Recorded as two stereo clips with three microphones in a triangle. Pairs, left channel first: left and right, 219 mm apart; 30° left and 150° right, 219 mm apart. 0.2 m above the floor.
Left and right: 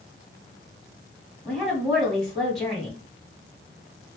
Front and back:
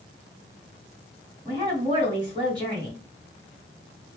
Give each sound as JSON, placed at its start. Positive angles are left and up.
{"t": 1.4, "sound": "a woman speaking", "azimuth_deg": 180, "distance_m": 1.7}